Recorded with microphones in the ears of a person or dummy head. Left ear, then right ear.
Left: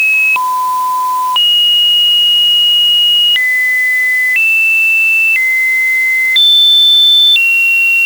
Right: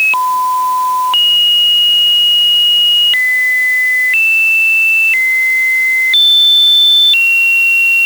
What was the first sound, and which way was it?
Only background noise.